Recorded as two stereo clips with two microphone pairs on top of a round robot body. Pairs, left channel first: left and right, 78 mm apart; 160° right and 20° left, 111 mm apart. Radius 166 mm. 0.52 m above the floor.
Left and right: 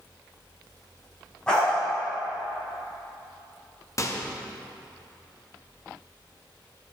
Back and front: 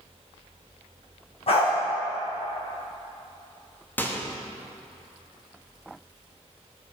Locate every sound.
1.5 s a dog barking: 170° left, 2 m
4.0 s a microwave: 130° left, 0.8 m